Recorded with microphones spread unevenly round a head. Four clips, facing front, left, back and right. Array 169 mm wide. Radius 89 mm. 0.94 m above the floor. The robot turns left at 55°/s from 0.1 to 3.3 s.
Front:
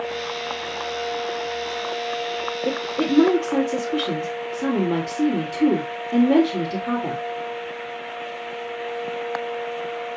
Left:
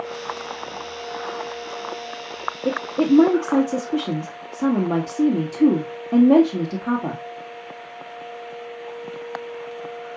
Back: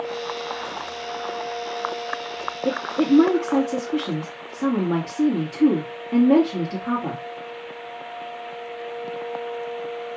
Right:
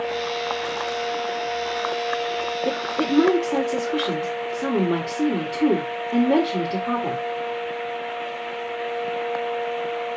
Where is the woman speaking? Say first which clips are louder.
Left 7 dB, back 4 dB; 135° left, 1.8 m; by 7.2 s 95° left, 1.8 m.